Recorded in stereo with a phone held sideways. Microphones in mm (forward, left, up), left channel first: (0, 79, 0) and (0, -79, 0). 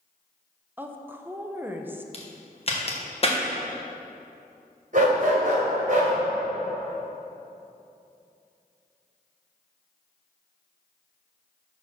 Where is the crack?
40° left (ahead or behind), 1.3 m.